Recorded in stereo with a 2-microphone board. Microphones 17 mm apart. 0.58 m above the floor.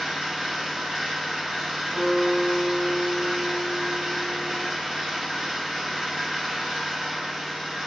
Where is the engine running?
65° right (ahead or behind), 1.1 m.